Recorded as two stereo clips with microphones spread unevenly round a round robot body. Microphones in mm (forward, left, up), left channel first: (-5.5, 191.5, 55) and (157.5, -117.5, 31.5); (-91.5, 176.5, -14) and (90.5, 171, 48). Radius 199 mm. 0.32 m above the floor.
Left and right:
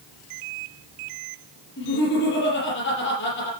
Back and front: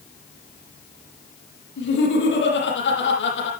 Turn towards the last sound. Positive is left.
turn(degrees=180)